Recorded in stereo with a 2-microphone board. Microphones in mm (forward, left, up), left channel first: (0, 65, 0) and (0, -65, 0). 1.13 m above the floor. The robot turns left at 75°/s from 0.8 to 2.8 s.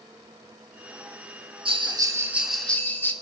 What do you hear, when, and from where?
1.6 s a bell: 115° right, 0.9 m; by 3.1 s 160° left, 0.9 m